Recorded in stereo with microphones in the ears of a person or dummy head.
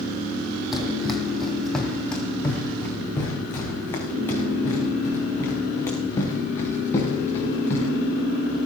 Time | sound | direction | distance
0.7 | running footsteps | centre (ahead or behind) | 3 m